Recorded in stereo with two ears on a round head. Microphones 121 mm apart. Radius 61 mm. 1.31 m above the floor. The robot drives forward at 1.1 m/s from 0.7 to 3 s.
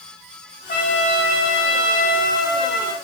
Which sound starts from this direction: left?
A trumpet, at 0.7 s.